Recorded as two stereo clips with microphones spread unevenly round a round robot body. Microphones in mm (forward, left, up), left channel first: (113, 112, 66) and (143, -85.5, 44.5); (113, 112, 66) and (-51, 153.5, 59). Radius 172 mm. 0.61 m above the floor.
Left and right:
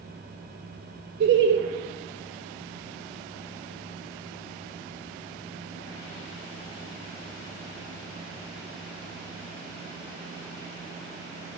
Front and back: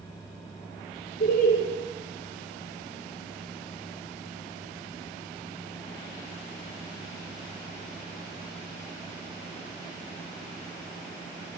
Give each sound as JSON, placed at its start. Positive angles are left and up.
{"t": 1.2, "sound": "laughter", "azimuth_deg": -60, "distance_m": 1.9}